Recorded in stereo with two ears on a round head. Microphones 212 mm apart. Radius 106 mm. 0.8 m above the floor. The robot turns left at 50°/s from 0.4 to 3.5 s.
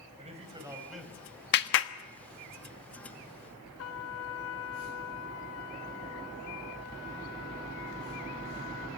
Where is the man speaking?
150° right, 5 m; by 1.3 s 165° left, 5 m.